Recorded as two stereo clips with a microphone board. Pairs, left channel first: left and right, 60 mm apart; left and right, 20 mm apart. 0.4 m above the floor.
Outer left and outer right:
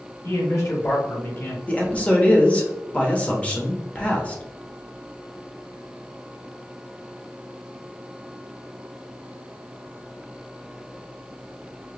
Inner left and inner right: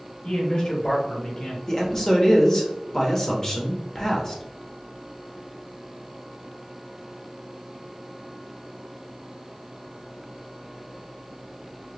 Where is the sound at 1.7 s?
20° left (ahead or behind), 0.9 m.